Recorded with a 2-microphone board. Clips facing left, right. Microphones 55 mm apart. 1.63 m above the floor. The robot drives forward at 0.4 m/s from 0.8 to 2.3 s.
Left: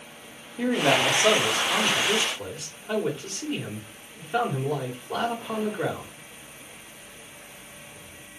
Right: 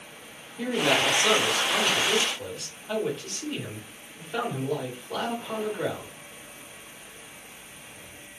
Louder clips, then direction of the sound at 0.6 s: Left 2 dB; 30° left (ahead or behind).